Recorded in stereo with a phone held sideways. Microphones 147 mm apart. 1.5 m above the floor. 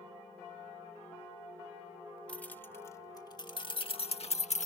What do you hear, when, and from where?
2.3 s keys jangling: 10° left (ahead or behind); by 4.7 s 55° left (ahead or behind)